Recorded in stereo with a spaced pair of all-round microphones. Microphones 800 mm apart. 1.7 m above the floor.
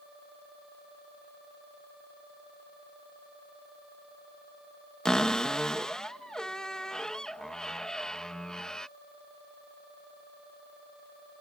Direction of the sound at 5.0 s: Centre (ahead or behind).